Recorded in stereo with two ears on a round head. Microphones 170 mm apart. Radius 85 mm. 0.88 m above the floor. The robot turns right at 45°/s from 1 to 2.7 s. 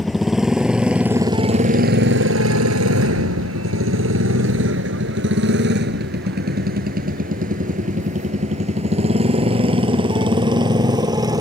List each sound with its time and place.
0.0 s a motorcycle: centre (ahead or behind); by 11.4 s 20° right (ahead or behind)